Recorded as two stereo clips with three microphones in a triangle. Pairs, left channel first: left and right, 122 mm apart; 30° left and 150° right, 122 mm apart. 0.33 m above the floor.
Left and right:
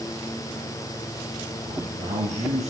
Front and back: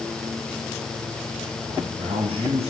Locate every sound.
1.7 s a man speaking: 110° right, 6.5 m